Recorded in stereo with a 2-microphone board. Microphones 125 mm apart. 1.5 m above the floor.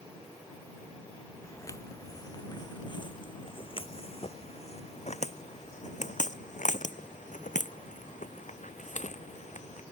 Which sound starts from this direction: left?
Footsteps, at 1.4 s.